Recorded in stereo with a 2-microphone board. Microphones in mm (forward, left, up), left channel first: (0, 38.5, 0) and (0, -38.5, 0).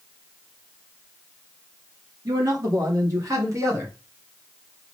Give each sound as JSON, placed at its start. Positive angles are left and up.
{"t": 2.2, "sound": "a man speaking", "side_deg": -50, "distance_m": 3.0}